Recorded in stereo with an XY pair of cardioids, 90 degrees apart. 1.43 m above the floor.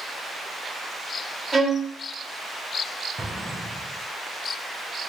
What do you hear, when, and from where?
1.5 s a violin: 25° right, 1.5 m
3.2 s an explosion: 20° right, 1.1 m